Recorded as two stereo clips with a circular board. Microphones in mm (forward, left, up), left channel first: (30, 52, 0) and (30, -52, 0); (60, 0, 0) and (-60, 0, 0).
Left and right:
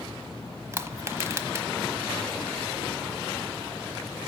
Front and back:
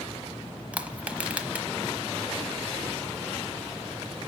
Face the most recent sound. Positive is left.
turn(degrees=-115)